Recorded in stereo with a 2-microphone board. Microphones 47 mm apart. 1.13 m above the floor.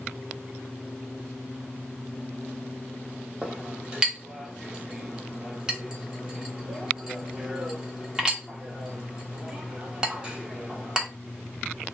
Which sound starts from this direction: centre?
A clink, at 3.4 s.